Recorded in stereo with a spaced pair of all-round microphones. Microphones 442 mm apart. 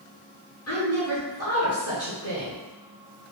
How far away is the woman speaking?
About 1.0 m.